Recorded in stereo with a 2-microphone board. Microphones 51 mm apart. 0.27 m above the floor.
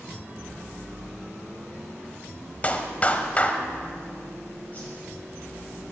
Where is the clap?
30° left (ahead or behind), 1.0 m.